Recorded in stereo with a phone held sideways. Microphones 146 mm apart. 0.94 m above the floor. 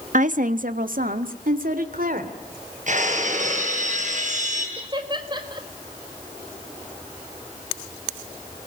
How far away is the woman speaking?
About 1.1 m.